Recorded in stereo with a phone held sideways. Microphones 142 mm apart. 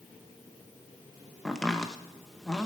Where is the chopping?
5° left (ahead or behind), 0.9 m.